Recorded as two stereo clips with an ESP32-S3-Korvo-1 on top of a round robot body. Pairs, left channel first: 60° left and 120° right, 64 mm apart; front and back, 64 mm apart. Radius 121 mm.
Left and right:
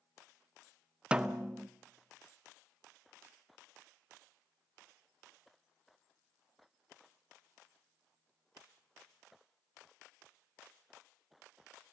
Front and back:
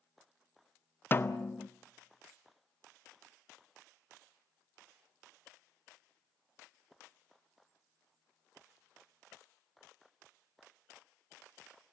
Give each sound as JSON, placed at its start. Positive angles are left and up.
{"t": 1.1, "sound": "a snare drum", "azimuth_deg": -50, "distance_m": 1.0}